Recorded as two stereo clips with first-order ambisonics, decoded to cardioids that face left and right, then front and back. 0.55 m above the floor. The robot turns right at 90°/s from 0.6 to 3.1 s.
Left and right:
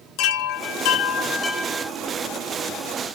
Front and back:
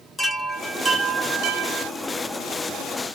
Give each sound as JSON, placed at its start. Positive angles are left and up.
{"t": 0.2, "sound": "a chime", "azimuth_deg": 85, "distance_m": 0.6}